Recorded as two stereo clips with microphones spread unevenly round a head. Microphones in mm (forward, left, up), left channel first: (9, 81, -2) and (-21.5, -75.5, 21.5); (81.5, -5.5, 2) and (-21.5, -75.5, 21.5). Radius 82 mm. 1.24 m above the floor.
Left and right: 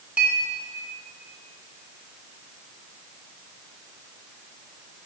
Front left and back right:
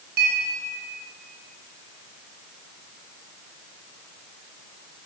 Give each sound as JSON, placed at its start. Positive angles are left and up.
{"t": 0.2, "sound": "a clink", "azimuth_deg": 180, "distance_m": 2.0}